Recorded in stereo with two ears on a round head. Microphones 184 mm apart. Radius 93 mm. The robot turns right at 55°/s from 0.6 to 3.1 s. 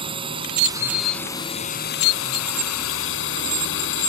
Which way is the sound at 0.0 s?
25° right.